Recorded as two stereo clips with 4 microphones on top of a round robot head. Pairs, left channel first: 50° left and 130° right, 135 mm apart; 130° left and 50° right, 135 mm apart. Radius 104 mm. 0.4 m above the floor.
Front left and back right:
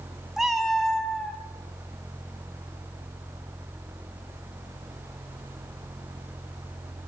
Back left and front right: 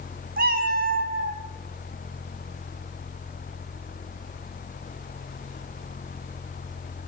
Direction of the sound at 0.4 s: 45° right.